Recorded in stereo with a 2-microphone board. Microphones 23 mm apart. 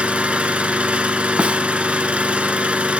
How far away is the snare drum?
About 0.7 m.